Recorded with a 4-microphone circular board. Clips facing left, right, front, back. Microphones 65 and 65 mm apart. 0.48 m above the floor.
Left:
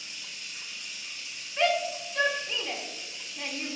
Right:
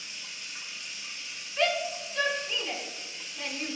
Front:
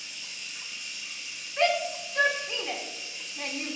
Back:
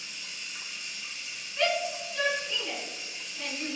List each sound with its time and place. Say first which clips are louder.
0.0 s running water: even, back 1 dB; 145° right, 1.2 m
1.6 s a shout: left 2 dB, front 3 dB; 30° left, 0.9 m